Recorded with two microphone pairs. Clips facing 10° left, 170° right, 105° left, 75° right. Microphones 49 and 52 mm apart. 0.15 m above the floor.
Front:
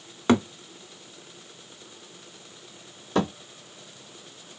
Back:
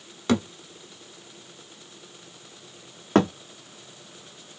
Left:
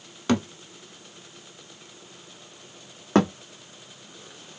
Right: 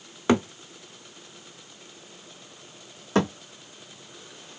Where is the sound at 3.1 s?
155° left, 1.5 m.